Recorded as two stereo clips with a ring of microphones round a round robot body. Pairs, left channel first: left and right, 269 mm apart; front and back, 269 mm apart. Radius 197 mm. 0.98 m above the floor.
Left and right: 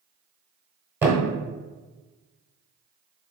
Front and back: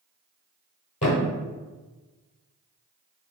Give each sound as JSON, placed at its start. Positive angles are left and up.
{"t": 1.0, "sound": "a thud", "azimuth_deg": -25, "distance_m": 1.0}